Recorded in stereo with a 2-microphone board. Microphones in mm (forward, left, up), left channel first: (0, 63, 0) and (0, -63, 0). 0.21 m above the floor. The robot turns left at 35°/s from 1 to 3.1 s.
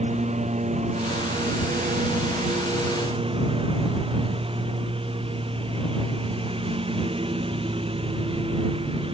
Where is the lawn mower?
60° right; by 9.1 s 135° right.